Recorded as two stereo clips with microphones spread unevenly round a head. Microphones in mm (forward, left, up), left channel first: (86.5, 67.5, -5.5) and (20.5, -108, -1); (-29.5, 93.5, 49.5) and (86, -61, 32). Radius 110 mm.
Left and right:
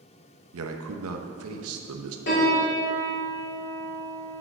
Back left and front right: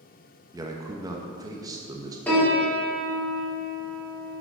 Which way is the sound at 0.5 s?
125° right.